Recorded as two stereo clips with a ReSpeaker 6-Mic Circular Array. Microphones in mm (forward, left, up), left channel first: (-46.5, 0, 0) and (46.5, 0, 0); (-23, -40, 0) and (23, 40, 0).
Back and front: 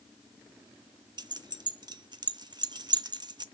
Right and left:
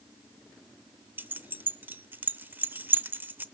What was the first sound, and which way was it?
Keys jangling, straight ahead.